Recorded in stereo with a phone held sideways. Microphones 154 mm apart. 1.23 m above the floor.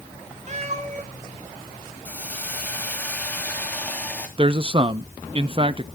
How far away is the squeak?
I don't hear a squeak.